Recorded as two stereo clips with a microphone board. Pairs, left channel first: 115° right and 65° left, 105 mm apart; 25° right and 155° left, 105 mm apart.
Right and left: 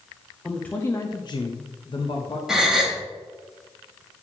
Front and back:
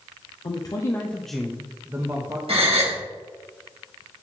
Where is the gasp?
150° left, 1.7 m.